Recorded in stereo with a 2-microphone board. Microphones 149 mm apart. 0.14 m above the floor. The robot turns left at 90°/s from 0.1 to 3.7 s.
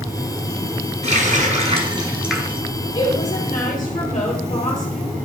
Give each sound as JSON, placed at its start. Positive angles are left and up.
{"t": 1.0, "sound": "a running tap", "azimuth_deg": -60, "distance_m": 1.8}
{"t": 3.0, "sound": "a woman speaking", "azimuth_deg": 145, "distance_m": 3.0}